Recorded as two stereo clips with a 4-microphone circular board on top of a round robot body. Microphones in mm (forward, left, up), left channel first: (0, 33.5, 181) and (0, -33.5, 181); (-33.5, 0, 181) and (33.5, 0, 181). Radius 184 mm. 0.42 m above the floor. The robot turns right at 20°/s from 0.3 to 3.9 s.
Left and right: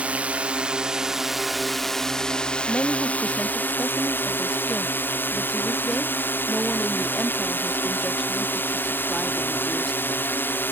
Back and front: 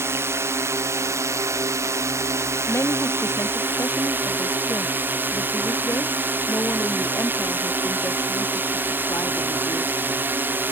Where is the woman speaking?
150° left; by 10.2 s 175° left.